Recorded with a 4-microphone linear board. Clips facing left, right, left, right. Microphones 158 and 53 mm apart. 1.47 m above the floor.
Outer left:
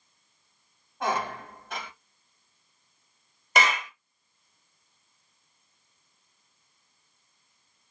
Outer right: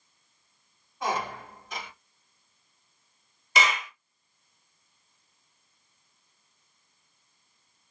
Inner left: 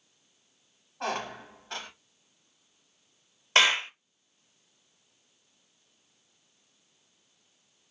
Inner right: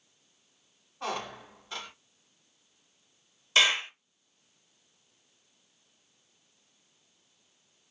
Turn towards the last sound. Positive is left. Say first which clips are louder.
# outer left 2 dB, inner left 2 dB
turn(degrees=55)  # may be behind; listen again after turning